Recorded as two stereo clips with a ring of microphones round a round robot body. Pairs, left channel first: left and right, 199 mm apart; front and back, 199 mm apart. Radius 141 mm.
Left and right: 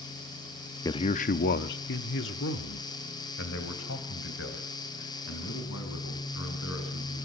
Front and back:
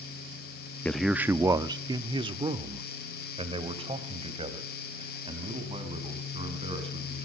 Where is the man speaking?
65° left, 0.5 m; by 7.2 s 120° left, 5 m.